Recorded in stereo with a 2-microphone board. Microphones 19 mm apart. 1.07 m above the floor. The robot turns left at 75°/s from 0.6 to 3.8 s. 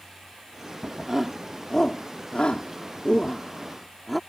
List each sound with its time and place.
1.1 s a shout: 25° right (ahead or behind); by 4.2 s 5° left (ahead or behind)